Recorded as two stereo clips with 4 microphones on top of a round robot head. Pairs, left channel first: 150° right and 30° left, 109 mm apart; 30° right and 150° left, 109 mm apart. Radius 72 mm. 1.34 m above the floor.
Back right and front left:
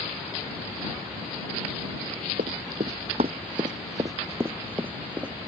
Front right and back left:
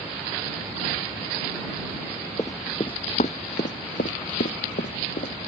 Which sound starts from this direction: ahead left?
Running footsteps, at 2.4 s.